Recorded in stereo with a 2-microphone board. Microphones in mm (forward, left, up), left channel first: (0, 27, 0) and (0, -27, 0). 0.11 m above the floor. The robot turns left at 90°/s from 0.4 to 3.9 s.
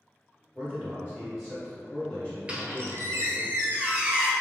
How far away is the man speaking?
About 1.8 m.